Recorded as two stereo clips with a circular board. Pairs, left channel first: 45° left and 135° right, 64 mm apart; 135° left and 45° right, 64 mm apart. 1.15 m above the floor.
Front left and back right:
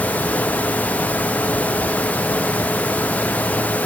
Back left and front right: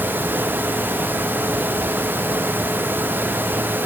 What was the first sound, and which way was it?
Only background noise.